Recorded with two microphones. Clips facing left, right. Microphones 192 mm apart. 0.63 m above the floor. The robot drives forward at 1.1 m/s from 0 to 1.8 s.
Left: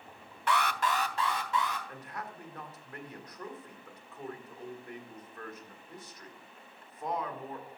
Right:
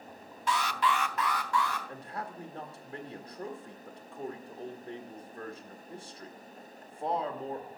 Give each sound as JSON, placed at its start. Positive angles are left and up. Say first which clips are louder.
{"t": 0.5, "sound": "an alarm", "louder": "even", "side_deg": 60, "distance_m": 0.5}
{"t": 1.9, "sound": "a man speaking", "louder": "right 3 dB", "side_deg": -30, "distance_m": 1.3}